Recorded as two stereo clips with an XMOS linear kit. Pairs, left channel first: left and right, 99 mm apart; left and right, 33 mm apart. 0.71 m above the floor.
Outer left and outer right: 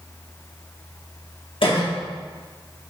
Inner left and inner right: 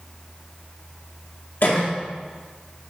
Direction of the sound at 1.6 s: 60° left (ahead or behind).